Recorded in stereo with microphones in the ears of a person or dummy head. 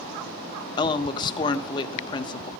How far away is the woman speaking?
About 0.7 m.